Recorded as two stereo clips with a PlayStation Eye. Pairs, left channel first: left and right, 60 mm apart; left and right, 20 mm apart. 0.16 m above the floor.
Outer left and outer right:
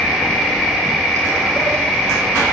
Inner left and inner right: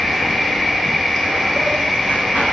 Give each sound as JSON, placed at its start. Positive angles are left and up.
{"t": 0.0, "sound": "an insect", "side_deg": 10, "distance_m": 1.3}